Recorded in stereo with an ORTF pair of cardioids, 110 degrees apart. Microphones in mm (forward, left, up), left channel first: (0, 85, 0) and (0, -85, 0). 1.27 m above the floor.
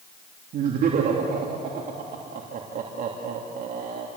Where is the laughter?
60° right, 3 m.